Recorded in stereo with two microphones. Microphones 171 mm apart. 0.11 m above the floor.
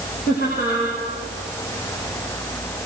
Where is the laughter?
70° left (ahead or behind), 7 m.